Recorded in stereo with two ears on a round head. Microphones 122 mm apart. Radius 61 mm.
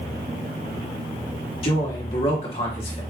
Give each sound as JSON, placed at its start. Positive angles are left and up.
{"t": 1.6, "sound": "a man speaking", "side_deg": 45, "distance_m": 1.5}